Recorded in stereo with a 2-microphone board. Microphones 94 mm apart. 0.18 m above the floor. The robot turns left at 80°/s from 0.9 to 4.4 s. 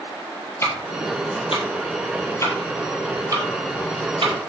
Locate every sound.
0.6 s ticking: 25° left (ahead or behind), 1.4 m; by 4.3 s 55° right (ahead or behind), 1.4 m